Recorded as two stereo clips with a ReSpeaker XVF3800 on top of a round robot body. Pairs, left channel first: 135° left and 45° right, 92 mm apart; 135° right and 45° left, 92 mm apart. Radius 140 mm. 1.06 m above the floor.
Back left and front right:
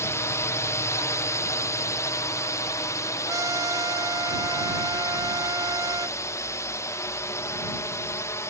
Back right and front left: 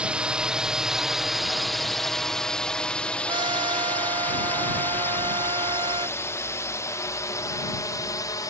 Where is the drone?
115° left; by 8.5 s 175° right.